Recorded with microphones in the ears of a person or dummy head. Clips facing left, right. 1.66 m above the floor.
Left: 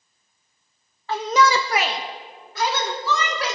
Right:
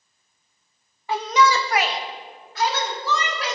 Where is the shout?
10° right (ahead or behind), 0.5 m; by 3.6 s 75° left (ahead or behind), 3.5 m.